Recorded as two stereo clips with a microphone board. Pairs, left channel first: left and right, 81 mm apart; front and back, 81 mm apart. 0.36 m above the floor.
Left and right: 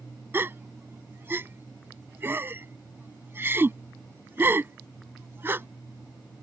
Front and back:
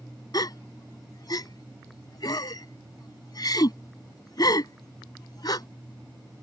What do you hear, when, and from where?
0.3 s a gasp: 30° right